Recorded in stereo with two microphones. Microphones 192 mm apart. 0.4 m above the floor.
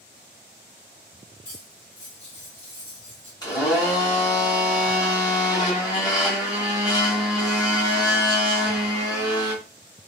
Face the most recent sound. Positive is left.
turn(degrees=20)  # may be behind; listen again after turning